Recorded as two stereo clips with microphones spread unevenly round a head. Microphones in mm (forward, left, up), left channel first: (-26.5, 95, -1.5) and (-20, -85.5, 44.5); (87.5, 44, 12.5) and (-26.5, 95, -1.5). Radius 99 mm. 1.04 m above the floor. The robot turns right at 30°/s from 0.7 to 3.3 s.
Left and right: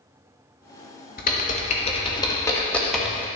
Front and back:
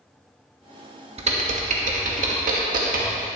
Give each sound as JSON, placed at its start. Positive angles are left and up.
{"t": 1.2, "sound": "typing on a keyboard", "azimuth_deg": 125, "distance_m": 1.5}